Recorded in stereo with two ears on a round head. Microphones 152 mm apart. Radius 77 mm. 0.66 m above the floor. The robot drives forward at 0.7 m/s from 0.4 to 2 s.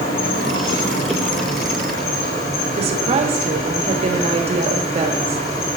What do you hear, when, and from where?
0.0 s an insect: 80° left, 6 m; by 5.8 s 75° left (ahead or behind), 6.5 m
2.8 s a woman speaking: 35° right (ahead or behind), 1.3 m